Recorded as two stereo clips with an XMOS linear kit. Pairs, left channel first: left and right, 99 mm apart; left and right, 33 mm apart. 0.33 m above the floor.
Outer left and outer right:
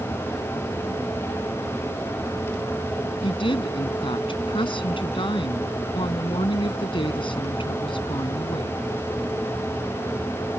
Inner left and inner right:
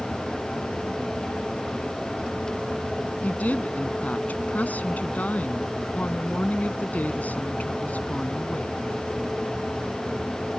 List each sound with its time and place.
3.2 s a woman speaking: 60° left (ahead or behind)